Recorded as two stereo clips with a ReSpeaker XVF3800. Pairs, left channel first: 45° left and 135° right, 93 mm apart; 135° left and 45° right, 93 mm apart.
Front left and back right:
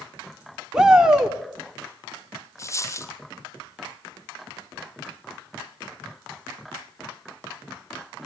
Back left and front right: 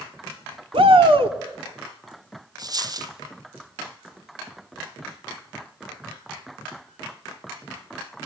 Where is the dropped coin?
10° right, 1.6 m.